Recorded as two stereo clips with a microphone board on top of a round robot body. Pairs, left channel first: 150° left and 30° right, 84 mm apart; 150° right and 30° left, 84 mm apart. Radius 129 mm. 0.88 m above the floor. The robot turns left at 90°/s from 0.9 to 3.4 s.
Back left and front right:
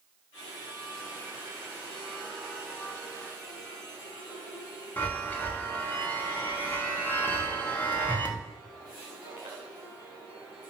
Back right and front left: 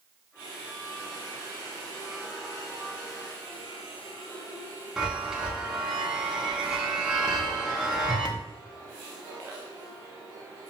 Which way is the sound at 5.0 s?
105° left.